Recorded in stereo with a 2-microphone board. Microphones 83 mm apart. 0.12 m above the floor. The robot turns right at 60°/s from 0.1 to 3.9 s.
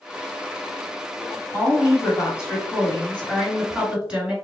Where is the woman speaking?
60° left, 1.6 m; by 4.3 s 160° right, 1.6 m.